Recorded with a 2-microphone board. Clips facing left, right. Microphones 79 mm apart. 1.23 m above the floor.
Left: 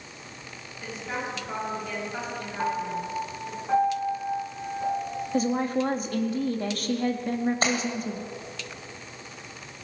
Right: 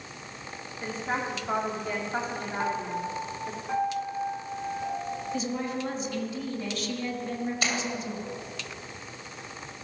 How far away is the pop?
No pop in this recording.